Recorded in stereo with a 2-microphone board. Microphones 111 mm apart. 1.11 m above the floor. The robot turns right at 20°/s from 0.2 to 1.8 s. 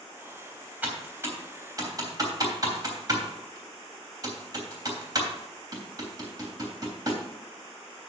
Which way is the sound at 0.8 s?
15° right (ahead or behind).